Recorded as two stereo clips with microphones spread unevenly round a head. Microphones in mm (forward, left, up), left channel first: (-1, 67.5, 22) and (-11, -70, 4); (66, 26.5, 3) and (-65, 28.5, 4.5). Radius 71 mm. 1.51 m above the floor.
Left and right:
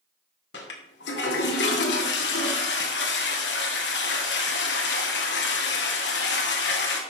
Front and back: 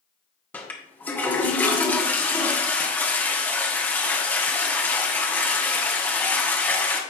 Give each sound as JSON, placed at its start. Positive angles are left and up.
{"t": 0.5, "sound": "a toilet flushing", "azimuth_deg": 75, "distance_m": 1.8}